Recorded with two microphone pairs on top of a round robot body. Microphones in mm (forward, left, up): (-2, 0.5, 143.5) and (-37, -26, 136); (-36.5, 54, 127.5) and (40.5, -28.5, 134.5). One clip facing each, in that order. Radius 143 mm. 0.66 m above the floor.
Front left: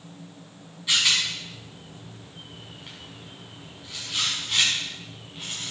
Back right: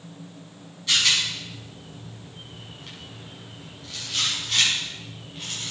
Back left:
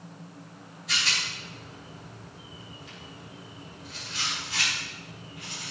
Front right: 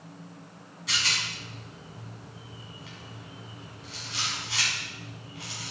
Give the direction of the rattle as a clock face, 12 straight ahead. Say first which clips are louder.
Back right 1 dB, even; 1 o'clock.